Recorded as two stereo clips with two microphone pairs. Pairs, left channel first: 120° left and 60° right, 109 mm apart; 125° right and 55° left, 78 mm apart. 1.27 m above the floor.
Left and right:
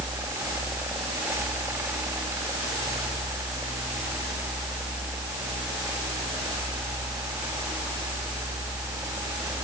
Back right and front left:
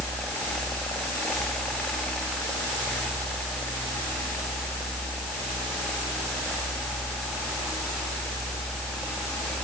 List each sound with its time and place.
Only background noise.